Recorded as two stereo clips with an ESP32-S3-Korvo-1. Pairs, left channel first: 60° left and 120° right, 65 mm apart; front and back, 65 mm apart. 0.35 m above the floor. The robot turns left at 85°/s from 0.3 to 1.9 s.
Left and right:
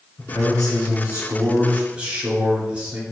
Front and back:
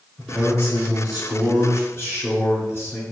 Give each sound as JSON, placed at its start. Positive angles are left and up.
{"t": 0.2, "sound": "a man speaking", "azimuth_deg": 90, "distance_m": 3.5}